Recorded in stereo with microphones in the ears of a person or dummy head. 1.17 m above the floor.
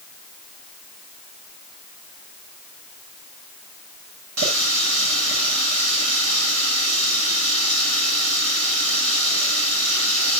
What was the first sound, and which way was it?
A running tap, 90° right.